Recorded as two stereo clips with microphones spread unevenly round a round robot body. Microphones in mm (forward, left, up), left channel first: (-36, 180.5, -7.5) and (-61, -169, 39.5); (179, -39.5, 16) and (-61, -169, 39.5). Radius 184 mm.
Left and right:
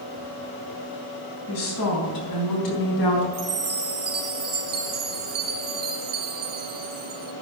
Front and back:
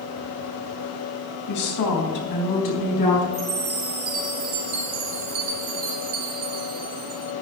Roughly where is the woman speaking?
Ahead left.